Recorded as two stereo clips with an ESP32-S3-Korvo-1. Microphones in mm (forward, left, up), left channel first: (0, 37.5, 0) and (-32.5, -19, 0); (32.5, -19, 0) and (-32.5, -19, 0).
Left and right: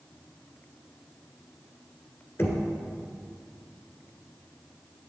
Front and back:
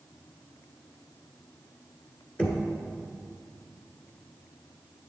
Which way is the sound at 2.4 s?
55° left.